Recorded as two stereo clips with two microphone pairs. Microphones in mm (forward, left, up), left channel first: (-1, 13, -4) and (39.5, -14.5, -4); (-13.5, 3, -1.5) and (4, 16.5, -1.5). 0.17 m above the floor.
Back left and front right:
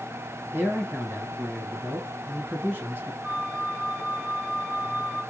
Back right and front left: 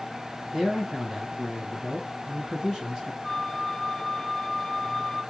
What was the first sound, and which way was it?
A man speaking, 10° right.